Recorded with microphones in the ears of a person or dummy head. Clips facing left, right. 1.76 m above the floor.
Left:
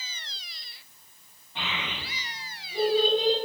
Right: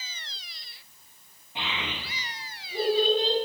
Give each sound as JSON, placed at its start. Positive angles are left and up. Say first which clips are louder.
{"t": 1.6, "sound": "a child speaking", "louder": "right 1 dB", "side_deg": -20, "distance_m": 1.1}